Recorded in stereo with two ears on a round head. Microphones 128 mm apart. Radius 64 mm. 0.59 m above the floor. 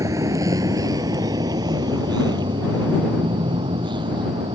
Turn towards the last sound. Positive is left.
turn(degrees=-35)  # may be behind; listen again after turning